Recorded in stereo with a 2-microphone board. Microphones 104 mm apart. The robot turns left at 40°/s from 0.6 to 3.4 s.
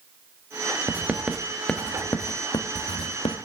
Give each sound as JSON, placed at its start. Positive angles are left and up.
{"t": 0.9, "sound": "writing", "side_deg": -20, "distance_m": 1.4}